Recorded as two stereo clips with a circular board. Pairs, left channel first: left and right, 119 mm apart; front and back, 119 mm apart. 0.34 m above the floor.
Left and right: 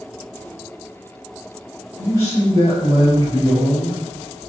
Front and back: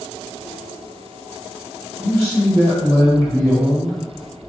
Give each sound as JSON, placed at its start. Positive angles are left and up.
{"t": 2.0, "sound": "a man speaking", "azimuth_deg": 50, "distance_m": 1.3}